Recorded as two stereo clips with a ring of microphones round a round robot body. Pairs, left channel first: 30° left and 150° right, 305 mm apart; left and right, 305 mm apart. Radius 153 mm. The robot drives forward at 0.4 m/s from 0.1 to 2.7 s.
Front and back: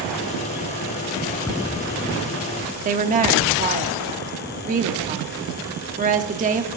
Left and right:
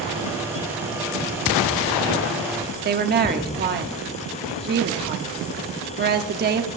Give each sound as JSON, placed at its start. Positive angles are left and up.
{"t": 2.9, "sound": "a woman speaking", "azimuth_deg": -110, "distance_m": 1.1}